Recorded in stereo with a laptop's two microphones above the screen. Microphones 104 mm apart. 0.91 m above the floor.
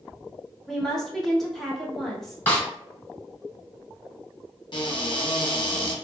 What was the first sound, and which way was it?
A woman speaking, 5° left (ahead or behind).